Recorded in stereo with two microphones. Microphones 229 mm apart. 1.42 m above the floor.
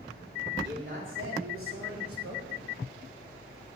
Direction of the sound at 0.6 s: 50° right (ahead or behind).